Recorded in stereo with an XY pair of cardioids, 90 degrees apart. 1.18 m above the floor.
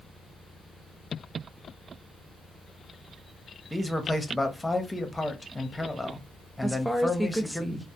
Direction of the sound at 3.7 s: 10° left.